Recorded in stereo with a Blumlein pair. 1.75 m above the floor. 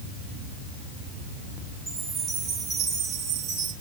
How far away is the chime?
About 5.5 m.